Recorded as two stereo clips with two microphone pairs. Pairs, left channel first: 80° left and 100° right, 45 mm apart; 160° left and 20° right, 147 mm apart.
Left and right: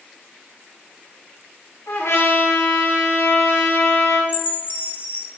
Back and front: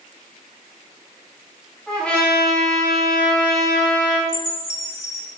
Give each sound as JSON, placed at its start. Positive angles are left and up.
{"t": 1.9, "sound": "a trumpet", "azimuth_deg": 75, "distance_m": 6.0}
{"t": 4.3, "sound": "a chime", "azimuth_deg": 115, "distance_m": 2.5}